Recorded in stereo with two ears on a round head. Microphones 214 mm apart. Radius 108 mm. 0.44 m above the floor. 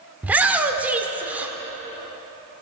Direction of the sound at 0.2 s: 5° right (ahead or behind).